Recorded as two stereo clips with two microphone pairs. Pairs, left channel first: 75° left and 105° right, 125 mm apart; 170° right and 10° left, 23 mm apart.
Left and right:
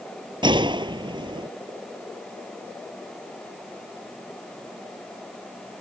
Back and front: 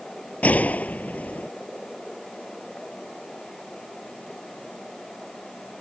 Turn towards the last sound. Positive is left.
turn(degrees=-155)